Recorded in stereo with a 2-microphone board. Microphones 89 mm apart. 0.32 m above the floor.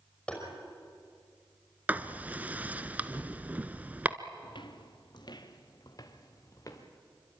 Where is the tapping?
10° left (ahead or behind), 5.5 m.